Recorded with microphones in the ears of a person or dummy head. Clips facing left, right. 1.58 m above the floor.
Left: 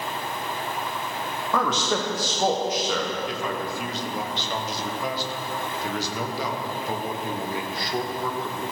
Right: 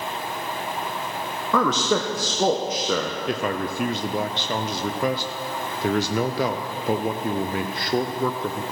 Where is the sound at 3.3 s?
45° right (ahead or behind), 0.6 m.